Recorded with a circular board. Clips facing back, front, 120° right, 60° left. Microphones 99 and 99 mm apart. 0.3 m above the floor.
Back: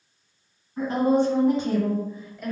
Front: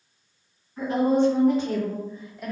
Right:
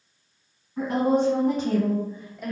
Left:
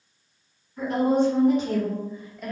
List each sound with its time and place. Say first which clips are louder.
0.8 s a woman speaking: even, even; 135° right, 1.9 m; by 2.5 s 30° right, 0.9 m